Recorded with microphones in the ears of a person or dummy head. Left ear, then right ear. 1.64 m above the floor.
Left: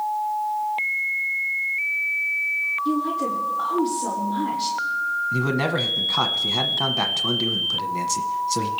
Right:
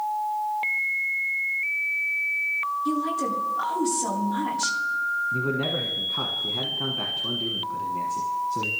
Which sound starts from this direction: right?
A woman speaking, at 2.9 s.